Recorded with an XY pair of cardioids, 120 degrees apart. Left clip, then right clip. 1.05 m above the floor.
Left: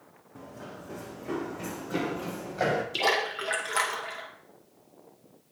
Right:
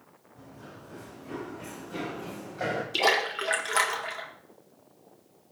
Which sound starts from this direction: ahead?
A splash, at 2.9 s.